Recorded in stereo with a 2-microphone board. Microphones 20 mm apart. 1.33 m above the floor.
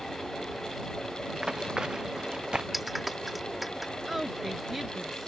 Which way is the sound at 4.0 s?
15° right (ahead or behind).